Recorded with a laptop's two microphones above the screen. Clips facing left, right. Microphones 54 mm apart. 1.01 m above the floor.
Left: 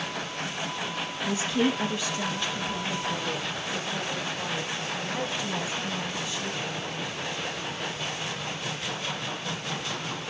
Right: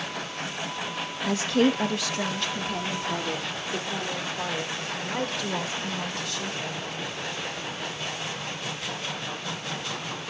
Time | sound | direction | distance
1.2 | a woman speaking | 65° right (ahead or behind) | 1.4 m